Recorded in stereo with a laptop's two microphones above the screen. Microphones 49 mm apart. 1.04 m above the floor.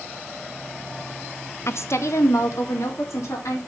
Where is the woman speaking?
60° left (ahead or behind), 0.5 m; by 3.6 s 85° left, 2.5 m.